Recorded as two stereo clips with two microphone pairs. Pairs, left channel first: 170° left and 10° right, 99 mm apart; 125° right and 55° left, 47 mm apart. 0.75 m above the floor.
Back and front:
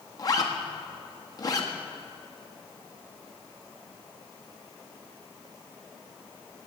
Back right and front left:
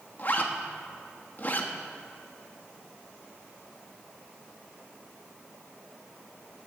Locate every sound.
0.2 s a zipper: 160° right, 1.1 m